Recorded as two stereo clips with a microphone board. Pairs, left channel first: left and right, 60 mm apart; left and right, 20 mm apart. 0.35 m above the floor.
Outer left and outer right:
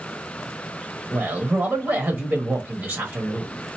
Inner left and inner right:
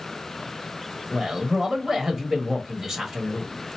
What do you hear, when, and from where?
1.1 s a man speaking: 35° right (ahead or behind), 1.3 m